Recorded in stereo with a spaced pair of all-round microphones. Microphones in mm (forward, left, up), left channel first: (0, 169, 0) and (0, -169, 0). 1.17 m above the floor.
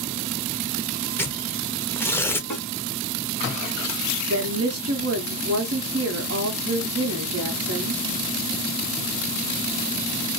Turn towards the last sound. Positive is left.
turn(degrees=-45)  # may be behind; listen again after turning